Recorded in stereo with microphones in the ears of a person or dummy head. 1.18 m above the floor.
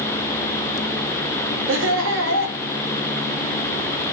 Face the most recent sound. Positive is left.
turn(degrees=-65)  # may be behind; listen again after turning